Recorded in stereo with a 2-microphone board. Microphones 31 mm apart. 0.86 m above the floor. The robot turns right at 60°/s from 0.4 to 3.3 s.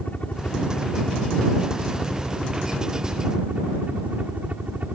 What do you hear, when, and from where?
0.0 s a helicopter: 70° left; by 5.0 s 115° right